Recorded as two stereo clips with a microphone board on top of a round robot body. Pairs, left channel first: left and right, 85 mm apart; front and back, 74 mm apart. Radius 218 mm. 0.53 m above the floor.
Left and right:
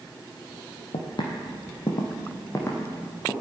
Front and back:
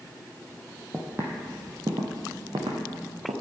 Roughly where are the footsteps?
Left.